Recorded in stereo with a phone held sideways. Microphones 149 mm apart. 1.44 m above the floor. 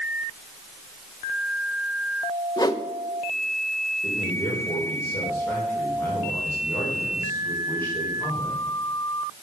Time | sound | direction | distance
2.6 | a whoosh | 25° left (ahead or behind) | 0.7 m
4.0 | a man speaking | 15° left (ahead or behind) | 4 m